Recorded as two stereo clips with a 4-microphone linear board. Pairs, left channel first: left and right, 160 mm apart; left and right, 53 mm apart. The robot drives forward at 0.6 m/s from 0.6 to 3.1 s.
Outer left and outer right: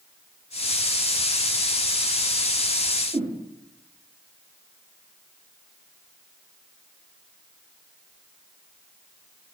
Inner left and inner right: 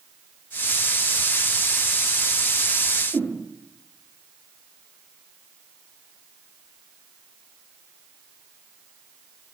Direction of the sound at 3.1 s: 60° right (ahead or behind).